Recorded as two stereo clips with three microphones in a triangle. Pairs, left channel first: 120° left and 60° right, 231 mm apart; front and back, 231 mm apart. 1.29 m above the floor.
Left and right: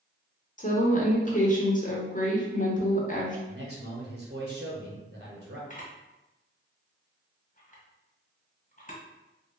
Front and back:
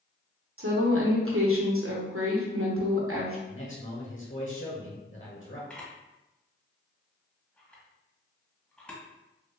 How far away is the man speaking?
About 1.0 m.